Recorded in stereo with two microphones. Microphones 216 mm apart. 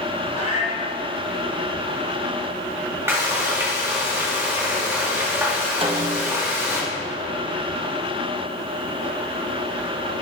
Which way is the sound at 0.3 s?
30° left (ahead or behind).